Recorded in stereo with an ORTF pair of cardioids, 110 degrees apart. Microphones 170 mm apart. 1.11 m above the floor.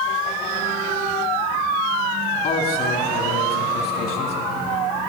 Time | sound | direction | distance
2.4 | a man speaking | 60° left | 2 m